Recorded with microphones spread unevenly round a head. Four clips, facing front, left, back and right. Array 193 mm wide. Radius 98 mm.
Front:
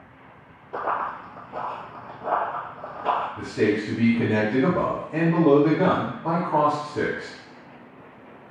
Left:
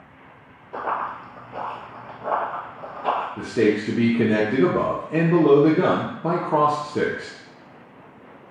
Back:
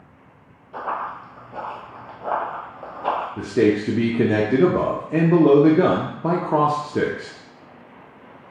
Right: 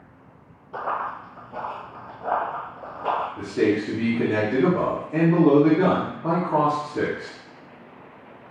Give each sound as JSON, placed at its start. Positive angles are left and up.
{"t": 0.7, "sound": "running footsteps", "azimuth_deg": 25, "distance_m": 1.4}
{"t": 3.4, "sound": "a man speaking", "azimuth_deg": 160, "distance_m": 0.8}